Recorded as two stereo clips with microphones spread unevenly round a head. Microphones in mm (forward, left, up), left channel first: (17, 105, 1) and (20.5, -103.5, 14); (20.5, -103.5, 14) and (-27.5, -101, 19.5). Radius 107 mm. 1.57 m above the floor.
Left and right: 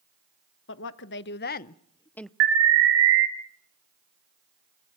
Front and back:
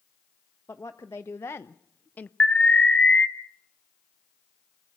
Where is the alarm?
70° right, 2.5 m.